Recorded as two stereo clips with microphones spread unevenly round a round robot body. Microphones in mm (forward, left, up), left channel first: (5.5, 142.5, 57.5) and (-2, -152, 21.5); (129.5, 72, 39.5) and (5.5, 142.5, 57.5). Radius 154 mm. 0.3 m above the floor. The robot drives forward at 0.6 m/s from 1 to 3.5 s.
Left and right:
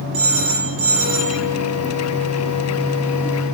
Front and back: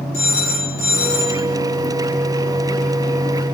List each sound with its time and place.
0.1 s a phone ringing: 45° right, 7 m